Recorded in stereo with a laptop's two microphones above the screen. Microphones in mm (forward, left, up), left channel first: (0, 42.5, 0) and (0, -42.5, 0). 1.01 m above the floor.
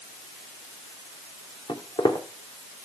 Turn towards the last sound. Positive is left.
turn(degrees=70)  # may be behind; listen again after turning